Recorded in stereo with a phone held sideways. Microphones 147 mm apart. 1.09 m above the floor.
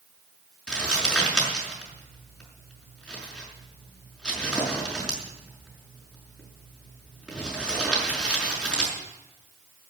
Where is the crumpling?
5° left (ahead or behind), 5.5 m.